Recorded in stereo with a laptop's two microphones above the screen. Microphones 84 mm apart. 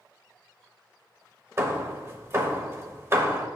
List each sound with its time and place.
1.6 s hammering: 35° right (ahead or behind), 0.9 m